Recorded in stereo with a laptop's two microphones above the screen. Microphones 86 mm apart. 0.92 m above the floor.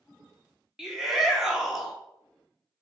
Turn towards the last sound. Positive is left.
turn(degrees=-5)  # may be behind; listen again after turning